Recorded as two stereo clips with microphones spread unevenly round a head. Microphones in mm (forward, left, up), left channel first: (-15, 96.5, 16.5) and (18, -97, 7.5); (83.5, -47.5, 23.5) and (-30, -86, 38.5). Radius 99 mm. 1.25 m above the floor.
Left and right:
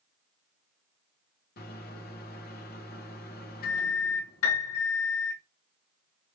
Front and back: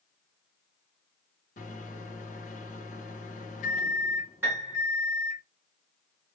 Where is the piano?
120° left, 1.6 m.